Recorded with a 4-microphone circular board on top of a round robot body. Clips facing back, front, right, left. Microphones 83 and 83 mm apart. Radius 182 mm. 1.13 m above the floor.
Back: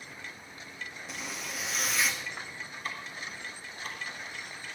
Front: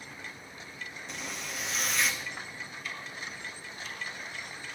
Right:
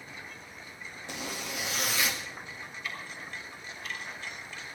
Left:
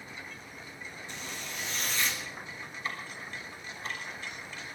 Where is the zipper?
95° right, 0.7 m.